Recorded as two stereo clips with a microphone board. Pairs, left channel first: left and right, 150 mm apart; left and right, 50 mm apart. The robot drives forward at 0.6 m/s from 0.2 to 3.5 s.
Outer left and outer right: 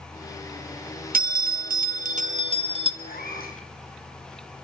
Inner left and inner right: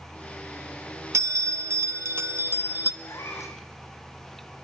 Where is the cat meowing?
80° left, 4.5 m; by 3.6 s 85° left, 4.5 m.